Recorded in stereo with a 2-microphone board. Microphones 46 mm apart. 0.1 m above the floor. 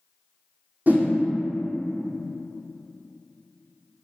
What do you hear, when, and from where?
0.9 s a whoosh: 40° right (ahead or behind), 0.7 m